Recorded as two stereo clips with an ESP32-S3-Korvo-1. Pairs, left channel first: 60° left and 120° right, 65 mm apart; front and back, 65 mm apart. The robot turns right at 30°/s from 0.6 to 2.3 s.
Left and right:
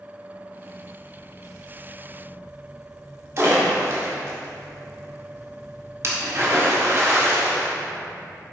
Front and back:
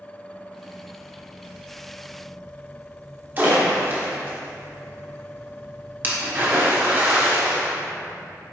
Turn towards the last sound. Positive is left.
turn(degrees=-135)